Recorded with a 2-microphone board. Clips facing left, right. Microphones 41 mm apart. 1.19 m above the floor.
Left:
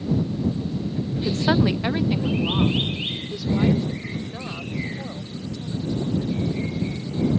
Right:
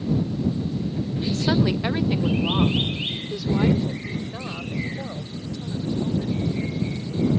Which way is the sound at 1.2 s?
45° left (ahead or behind).